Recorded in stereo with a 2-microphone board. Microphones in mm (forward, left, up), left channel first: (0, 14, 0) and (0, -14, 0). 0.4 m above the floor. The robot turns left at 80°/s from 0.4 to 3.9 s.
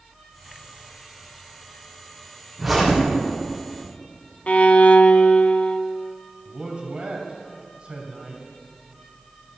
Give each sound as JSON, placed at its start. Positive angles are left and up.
{"t": 2.6, "sound": "a zipper", "azimuth_deg": -175, "distance_m": 4.0}
{"t": 4.5, "sound": "a violin", "side_deg": 60, "distance_m": 0.5}
{"t": 6.5, "sound": "a man speaking", "side_deg": -45, "distance_m": 2.5}